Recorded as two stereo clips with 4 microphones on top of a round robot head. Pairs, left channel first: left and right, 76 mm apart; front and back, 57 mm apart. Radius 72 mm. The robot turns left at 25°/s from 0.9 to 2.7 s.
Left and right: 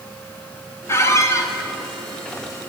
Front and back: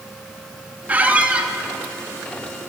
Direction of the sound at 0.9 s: 130° left.